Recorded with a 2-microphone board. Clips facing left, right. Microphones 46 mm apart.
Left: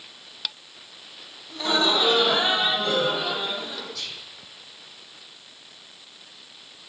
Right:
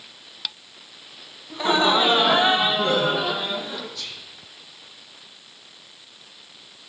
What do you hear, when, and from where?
1.5 s laughter: 20° right (ahead or behind), 1.5 m; by 3.9 s 25° right (ahead or behind), 3 m
4.0 s whispering: 80° left, 6.5 m